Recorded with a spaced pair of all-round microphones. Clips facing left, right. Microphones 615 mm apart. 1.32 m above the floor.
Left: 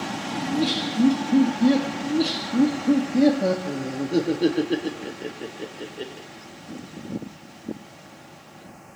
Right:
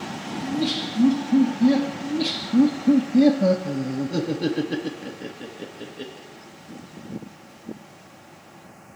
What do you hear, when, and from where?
0.4 s laughter: 15° right (ahead or behind), 2.5 m
2.0 s laughter: 35° right (ahead or behind), 0.9 m